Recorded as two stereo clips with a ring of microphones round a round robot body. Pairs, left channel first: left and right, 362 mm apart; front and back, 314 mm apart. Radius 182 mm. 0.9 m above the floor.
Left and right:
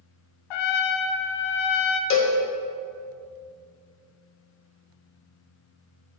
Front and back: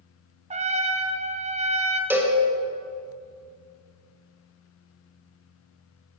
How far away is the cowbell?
About 1.0 m.